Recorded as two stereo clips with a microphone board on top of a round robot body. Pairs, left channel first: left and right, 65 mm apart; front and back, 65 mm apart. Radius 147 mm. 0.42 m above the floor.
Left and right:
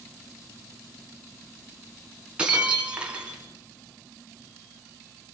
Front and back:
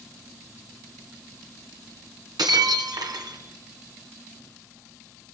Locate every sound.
2.4 s breaking glass: 165° right, 3.5 m